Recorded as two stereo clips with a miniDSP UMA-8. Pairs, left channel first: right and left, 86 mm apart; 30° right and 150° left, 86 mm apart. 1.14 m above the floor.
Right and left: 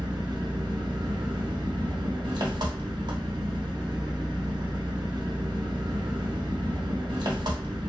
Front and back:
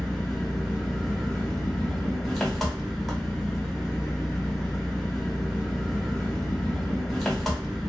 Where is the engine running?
60° left, 0.8 m.